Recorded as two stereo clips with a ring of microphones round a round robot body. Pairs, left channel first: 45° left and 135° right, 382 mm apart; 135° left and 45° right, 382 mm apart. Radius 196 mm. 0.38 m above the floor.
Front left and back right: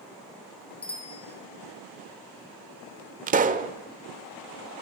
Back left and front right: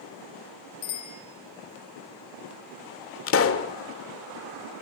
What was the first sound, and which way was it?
A bicycle bell, 120° left.